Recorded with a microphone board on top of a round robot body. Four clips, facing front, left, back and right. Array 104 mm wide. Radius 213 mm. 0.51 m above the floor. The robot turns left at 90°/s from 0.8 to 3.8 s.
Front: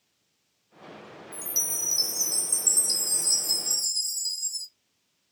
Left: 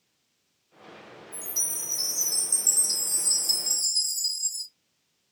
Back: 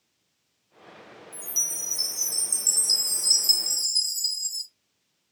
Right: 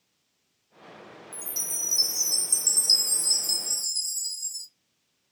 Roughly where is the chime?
Ahead.